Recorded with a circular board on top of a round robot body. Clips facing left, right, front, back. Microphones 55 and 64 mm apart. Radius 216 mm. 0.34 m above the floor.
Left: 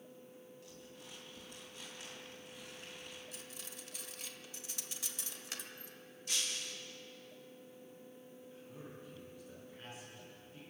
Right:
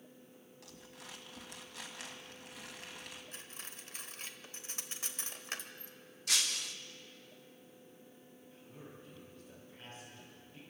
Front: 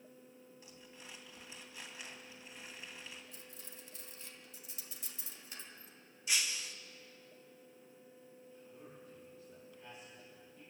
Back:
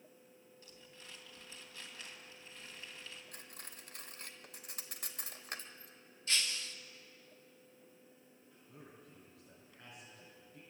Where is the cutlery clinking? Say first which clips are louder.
Right 1 dB, back 1 dB; 145° right, 1.5 m.